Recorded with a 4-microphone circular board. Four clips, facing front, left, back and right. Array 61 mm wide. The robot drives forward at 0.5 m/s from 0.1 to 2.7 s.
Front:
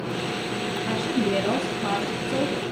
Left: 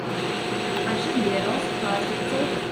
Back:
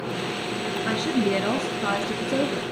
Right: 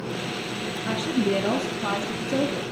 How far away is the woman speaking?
About 2.5 m.